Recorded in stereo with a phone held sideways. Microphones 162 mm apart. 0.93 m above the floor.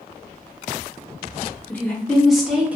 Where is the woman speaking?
10° left (ahead or behind), 1.0 m; by 2.8 s 10° right (ahead or behind), 0.6 m.